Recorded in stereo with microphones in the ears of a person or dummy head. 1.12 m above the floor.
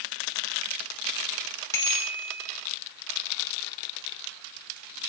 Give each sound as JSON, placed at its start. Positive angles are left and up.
{"t": 1.7, "sound": "a bicycle bell", "side_deg": 15, "distance_m": 2.5}